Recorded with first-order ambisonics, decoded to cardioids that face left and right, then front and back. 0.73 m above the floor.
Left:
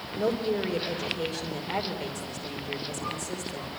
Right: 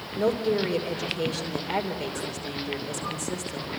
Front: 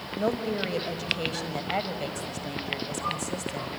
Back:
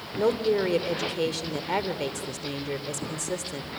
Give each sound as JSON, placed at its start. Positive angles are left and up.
{"t": 0.2, "sound": "a woman speaking", "azimuth_deg": -170, "distance_m": 2.5}